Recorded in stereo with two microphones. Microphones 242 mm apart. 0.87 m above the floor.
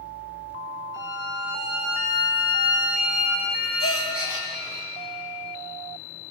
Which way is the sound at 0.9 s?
55° right (ahead or behind).